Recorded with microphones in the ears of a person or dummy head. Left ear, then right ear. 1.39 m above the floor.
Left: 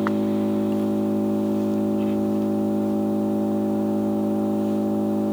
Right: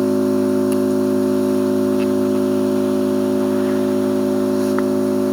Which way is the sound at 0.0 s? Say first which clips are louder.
Right 6 dB; 55° right (ahead or behind).